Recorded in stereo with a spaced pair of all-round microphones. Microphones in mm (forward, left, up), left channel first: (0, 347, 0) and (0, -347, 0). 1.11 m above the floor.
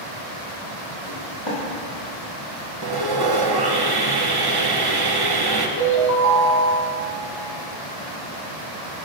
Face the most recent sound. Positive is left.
turn(degrees=25)  # may be behind; listen again after turning